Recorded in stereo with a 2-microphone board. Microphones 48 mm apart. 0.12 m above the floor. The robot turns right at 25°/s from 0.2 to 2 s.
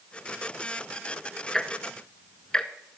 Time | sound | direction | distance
1.5 | ticking | 10° left (ahead or behind) | 0.7 m